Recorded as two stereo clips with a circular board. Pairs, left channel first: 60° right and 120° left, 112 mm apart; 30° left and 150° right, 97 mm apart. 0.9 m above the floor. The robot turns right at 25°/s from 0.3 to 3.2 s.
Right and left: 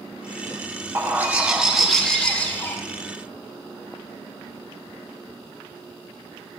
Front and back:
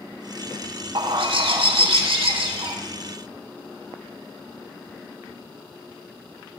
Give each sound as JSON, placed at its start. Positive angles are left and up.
{"t": 0.9, "sound": "a bird", "azimuth_deg": -175, "distance_m": 1.0}